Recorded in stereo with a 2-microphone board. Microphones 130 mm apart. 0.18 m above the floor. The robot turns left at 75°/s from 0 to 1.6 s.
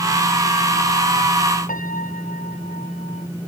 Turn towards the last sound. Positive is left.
turn(degrees=80)